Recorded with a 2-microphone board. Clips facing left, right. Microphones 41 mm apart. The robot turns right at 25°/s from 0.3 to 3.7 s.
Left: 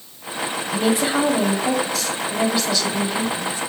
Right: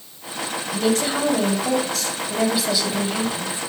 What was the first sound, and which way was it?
A woman speaking, 150° left.